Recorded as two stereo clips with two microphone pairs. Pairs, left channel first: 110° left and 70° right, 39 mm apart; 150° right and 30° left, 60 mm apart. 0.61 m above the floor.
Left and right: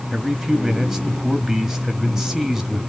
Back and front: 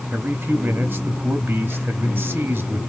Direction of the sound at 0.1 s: 15° left.